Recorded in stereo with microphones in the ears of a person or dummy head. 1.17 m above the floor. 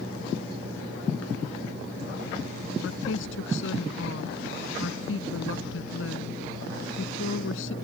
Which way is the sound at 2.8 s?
75° left (ahead or behind).